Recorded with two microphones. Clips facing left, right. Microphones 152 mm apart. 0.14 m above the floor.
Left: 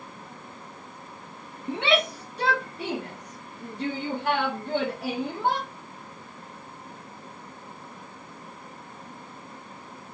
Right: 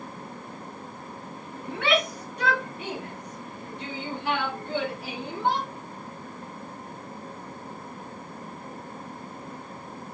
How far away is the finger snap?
I don't hear a finger snap.